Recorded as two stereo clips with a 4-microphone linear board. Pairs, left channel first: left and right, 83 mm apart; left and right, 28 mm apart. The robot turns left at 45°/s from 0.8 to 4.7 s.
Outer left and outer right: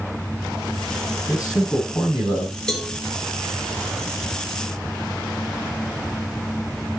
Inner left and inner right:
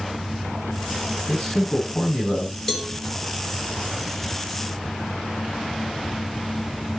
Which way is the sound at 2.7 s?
10° left (ahead or behind).